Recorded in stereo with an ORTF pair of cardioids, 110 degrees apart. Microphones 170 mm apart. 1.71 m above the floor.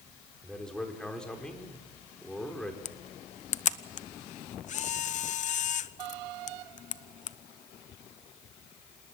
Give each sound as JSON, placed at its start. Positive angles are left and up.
{"t": 0.4, "sound": "a man speaking", "azimuth_deg": 5, "distance_m": 5.0}
{"t": 2.9, "sound": "a camera shutter", "azimuth_deg": 45, "distance_m": 0.8}